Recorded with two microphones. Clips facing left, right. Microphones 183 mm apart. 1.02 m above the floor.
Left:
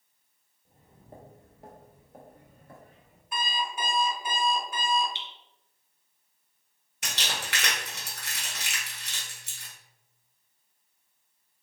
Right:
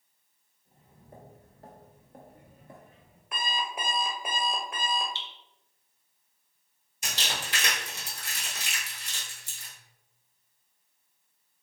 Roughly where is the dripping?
Centre.